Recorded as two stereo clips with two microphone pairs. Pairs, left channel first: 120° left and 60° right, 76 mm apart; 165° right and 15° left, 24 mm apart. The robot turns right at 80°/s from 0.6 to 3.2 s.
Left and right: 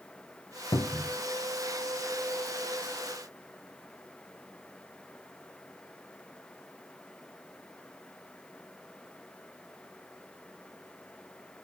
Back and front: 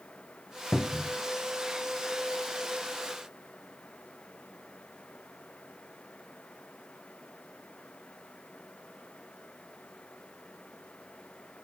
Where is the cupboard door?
125° left, 1.0 m; by 1.2 s 160° left, 1.0 m.